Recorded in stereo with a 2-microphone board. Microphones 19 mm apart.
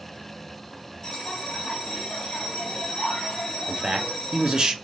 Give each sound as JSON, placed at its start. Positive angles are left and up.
{"t": 1.0, "sound": "a bell", "side_deg": 40, "distance_m": 1.2}
{"t": 3.7, "sound": "a man speaking", "side_deg": -50, "distance_m": 0.6}